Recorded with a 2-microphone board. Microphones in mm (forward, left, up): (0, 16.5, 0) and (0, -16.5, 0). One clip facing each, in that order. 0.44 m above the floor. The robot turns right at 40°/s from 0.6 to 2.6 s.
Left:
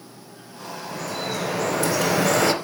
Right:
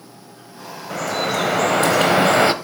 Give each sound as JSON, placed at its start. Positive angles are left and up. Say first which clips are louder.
{"t": 0.9, "sound": "dripping", "louder": "right 8 dB", "azimuth_deg": -100, "distance_m": 0.6}